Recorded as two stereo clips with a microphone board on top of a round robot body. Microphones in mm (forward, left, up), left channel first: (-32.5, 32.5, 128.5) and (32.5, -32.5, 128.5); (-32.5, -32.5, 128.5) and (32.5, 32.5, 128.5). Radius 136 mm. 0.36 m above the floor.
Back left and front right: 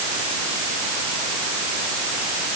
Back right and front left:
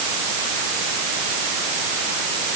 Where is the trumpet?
No trumpet in this recording.